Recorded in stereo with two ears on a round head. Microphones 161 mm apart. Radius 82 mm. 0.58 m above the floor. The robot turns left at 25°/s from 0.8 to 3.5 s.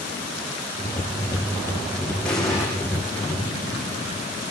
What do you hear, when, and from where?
2.2 s an explosion: 5° left (ahead or behind), 7 m; by 2.7 s 5° right (ahead or behind), 7 m